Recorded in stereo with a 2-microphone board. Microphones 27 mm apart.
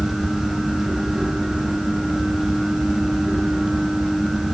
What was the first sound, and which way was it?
Only background noise.